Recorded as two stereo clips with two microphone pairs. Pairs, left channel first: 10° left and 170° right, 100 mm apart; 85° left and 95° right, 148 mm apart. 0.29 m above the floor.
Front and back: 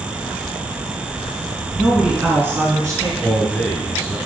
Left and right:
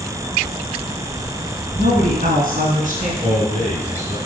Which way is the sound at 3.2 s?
60° right.